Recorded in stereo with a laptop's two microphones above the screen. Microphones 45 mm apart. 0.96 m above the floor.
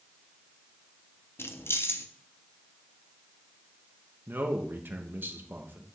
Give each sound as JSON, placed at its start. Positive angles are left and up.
{"t": 1.4, "sound": "keys jangling", "side_deg": 65, "distance_m": 0.7}
{"t": 4.3, "sound": "a man speaking", "side_deg": -50, "distance_m": 1.0}